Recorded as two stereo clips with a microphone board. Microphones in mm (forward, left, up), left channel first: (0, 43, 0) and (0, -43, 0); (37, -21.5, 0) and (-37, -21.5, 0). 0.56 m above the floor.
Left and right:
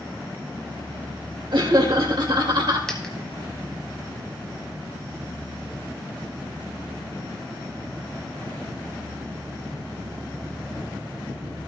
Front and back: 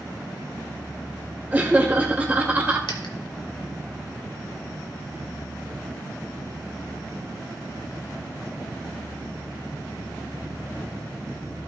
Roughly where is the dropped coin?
Ahead.